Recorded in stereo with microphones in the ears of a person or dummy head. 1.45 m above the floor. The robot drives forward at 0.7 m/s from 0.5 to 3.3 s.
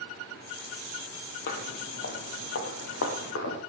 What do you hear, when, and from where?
1.5 s footsteps: 55° left (ahead or behind), 2.5 m; by 3.6 s 60° left (ahead or behind), 4 m